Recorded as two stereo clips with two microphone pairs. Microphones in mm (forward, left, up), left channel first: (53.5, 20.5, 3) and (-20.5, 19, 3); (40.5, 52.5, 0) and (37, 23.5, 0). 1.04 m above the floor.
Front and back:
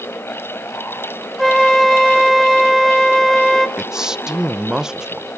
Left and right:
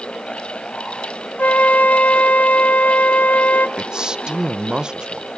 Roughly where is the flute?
Left.